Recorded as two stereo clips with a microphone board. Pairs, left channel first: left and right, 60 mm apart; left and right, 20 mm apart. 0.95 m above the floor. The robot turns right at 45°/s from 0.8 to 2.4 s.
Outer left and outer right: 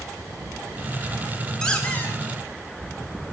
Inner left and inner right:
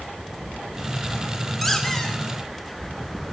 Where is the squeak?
10° left (ahead or behind), 1.9 m; by 2.2 s 40° left (ahead or behind), 1.9 m.